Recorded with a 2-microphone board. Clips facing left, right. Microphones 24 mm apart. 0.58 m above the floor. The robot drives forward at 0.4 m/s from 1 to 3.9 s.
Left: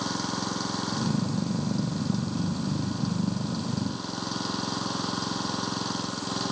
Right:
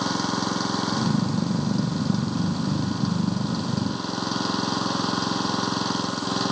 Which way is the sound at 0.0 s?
20° right (ahead or behind).